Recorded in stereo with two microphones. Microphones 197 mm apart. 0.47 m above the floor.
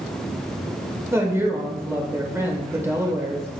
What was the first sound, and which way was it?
A woman speaking, 15° right (ahead or behind).